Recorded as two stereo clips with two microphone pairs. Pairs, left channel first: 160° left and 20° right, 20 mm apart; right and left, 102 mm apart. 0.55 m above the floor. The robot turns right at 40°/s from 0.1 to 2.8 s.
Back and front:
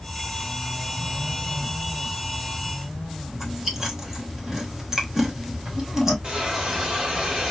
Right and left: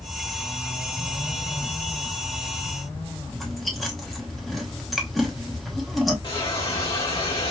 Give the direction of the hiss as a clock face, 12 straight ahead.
2 o'clock.